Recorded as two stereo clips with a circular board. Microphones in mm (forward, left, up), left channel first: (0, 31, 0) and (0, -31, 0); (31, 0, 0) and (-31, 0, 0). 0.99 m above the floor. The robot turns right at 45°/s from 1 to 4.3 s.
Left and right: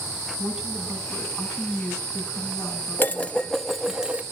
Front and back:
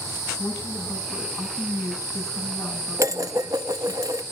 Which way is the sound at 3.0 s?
145° left.